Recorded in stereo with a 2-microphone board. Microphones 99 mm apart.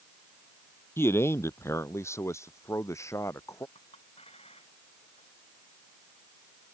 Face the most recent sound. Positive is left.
turn(degrees=85)